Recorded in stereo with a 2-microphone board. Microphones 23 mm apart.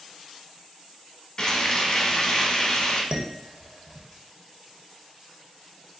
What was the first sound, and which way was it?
Frying, 25° left (ahead or behind).